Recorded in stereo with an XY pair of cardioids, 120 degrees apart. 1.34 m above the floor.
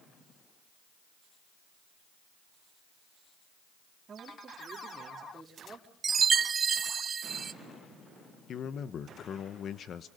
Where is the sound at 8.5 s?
50° left, 1.3 m.